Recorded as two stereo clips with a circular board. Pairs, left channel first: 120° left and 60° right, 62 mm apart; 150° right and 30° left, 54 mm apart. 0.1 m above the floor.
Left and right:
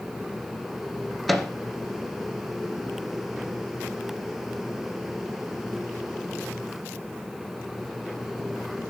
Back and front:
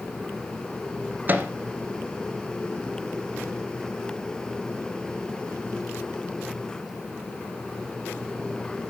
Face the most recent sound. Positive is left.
turn(degrees=30)